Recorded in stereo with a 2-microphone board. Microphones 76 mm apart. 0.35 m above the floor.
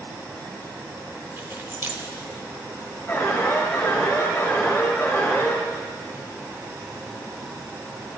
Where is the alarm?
30° left (ahead or behind), 4.5 m.